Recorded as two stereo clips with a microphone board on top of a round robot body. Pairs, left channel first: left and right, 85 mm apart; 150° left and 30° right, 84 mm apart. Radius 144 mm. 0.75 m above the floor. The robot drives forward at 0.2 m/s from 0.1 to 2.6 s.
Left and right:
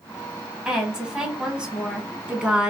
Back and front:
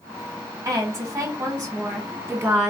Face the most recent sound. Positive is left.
turn(degrees=-35)